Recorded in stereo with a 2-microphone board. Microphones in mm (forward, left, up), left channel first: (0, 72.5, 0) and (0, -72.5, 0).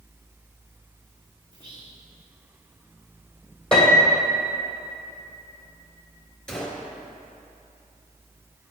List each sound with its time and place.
1.5 s whispering: 35° right (ahead or behind), 1.9 m
3.7 s a piano: 5° left (ahead or behind), 2.5 m
6.5 s a gunshot: 5° left (ahead or behind), 1.6 m